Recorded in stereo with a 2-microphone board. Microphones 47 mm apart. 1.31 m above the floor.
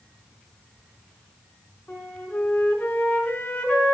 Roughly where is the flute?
Left.